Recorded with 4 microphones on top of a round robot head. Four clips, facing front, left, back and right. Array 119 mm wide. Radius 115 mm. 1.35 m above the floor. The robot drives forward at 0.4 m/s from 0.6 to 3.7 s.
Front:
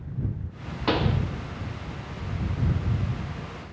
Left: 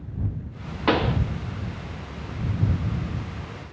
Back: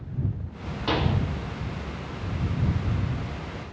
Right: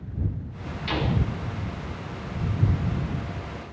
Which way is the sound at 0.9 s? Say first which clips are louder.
Left 6 dB, front 1 dB; 80° left.